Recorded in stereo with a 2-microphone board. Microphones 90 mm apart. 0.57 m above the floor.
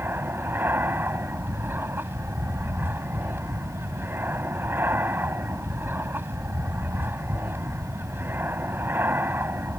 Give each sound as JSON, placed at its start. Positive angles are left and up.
{"t": 0.0, "sound": "an aircraft", "side_deg": -25}